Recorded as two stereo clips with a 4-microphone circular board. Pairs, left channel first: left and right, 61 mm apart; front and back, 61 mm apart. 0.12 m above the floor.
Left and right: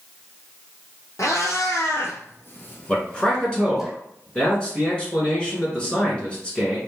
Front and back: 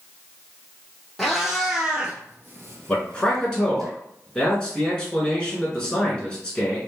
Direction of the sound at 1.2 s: 85° left.